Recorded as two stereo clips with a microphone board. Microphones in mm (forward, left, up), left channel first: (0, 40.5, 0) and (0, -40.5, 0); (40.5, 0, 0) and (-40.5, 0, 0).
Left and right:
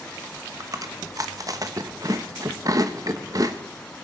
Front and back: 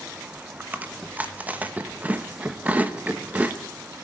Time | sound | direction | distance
0.6 | chewing | 115° right | 1.0 m